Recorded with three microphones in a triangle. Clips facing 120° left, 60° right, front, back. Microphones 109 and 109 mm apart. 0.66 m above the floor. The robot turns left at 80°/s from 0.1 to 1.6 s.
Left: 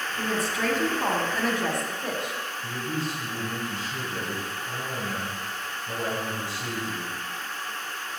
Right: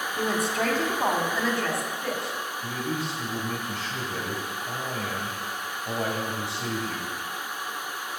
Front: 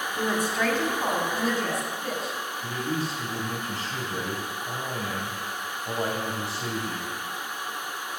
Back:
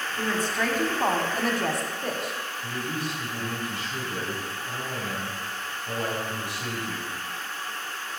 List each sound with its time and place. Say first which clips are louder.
0.2 s a woman speaking: right 2 dB, front 1 dB; 55° right, 1.8 m; by 2.4 s 170° right, 1.8 m
2.6 s a man speaking: even, front 3 dB; 55° right, 4 m